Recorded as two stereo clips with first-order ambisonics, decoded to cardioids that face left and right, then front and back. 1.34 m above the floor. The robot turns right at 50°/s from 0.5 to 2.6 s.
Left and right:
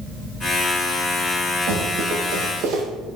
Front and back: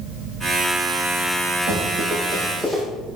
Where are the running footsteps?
130° right, 3.5 m; by 2.8 s 100° right, 3 m.